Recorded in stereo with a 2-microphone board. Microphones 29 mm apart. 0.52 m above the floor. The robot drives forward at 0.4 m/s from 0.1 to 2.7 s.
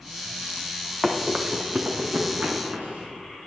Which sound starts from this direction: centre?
Running footsteps, at 1.0 s.